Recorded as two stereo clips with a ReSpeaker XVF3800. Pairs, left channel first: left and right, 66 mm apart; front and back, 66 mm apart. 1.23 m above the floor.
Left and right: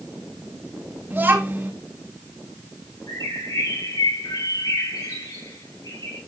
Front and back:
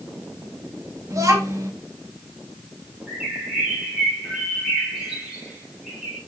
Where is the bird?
95° left, 5 m.